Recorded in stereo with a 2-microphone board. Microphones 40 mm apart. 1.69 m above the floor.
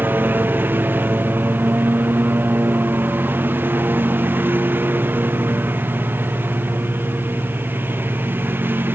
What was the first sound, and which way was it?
A lawn mower, 50° right (ahead or behind).